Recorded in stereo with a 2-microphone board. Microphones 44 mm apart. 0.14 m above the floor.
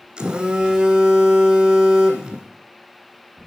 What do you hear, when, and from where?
0.2 s a phone buzzing: 15° right (ahead or behind), 1.5 m